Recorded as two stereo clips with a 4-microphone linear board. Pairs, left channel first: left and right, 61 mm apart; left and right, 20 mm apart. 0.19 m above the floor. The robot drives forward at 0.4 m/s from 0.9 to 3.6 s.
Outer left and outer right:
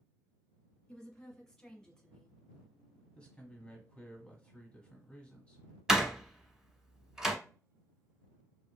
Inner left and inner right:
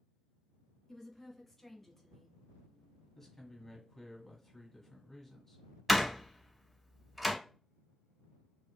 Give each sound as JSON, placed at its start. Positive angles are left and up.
{"t": 0.9, "sound": "a woman speaking", "side_deg": 10, "distance_m": 1.5}
{"t": 3.1, "sound": "a man speaking", "side_deg": 20, "distance_m": 1.2}
{"t": 5.9, "sound": "a door slam", "side_deg": -10, "distance_m": 0.8}